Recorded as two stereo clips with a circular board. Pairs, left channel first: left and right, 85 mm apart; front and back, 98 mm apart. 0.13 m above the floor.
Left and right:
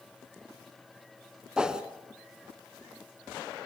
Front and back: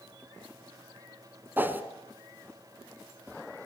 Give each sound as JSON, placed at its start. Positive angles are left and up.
{"t": 1.6, "sound": "a whoosh", "azimuth_deg": -155, "distance_m": 1.6}